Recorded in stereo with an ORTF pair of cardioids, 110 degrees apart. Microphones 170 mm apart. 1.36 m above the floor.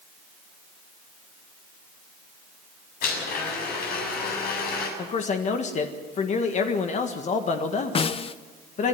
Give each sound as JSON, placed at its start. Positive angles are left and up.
{"t": 3.0, "sound": "a blender", "azimuth_deg": 65, "distance_m": 7.5}
{"t": 5.0, "sound": "a man speaking", "azimuth_deg": 45, "distance_m": 1.6}
{"t": 8.0, "sound": "a snare drum", "azimuth_deg": 35, "distance_m": 0.9}